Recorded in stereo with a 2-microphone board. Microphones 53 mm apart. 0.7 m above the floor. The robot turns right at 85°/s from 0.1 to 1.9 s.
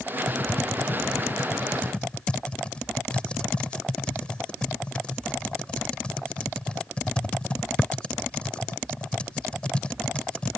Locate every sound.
0.3 s typing on a keyboard: 15° left (ahead or behind); by 10.6 s 20° left (ahead or behind)